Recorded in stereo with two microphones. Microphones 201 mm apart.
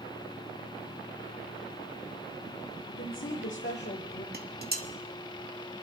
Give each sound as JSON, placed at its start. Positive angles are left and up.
{"t": 2.9, "sound": "a woman speaking", "side_deg": 85, "distance_m": 1.3}
{"t": 4.3, "sound": "dishes clattering", "side_deg": -50, "distance_m": 1.0}